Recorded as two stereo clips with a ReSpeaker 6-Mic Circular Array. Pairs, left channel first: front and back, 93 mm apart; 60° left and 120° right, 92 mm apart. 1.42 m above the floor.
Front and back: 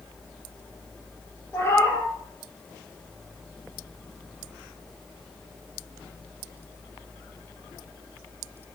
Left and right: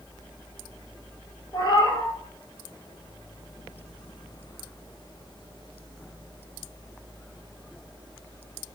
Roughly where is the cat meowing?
Ahead left.